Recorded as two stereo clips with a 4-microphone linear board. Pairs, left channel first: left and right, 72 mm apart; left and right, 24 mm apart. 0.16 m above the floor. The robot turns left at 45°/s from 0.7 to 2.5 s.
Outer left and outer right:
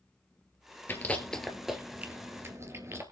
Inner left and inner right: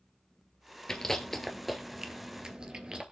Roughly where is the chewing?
Left.